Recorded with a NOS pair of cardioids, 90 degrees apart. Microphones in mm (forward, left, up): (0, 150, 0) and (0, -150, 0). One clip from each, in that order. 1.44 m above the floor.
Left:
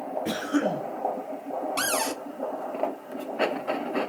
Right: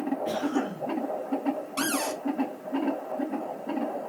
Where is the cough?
70° left, 1.6 m.